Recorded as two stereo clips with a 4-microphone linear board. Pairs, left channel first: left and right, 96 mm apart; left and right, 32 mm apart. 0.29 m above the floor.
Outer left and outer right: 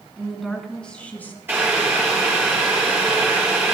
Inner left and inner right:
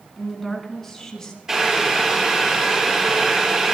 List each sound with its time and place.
0.2 s a woman speaking: 5° right (ahead or behind), 3 m; by 1.4 s 20° left (ahead or behind), 3.5 m
1.5 s boiling: 20° right (ahead or behind), 5.5 m